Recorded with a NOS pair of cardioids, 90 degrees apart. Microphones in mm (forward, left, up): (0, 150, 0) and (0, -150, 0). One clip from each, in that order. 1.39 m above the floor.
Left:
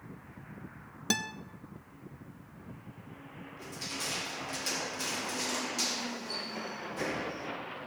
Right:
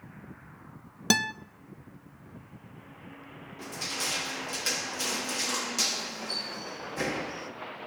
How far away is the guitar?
About 0.6 m.